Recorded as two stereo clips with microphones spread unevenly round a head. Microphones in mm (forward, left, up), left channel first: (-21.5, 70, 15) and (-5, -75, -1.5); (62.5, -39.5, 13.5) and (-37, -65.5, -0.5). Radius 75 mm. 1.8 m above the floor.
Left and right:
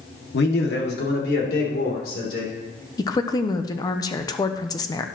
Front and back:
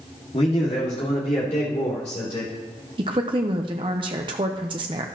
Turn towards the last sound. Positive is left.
turn(degrees=145)